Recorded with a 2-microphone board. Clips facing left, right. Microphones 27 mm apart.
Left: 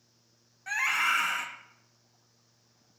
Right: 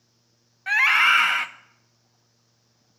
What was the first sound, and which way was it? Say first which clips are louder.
A scream: right 10 dB; 50° right (ahead or behind).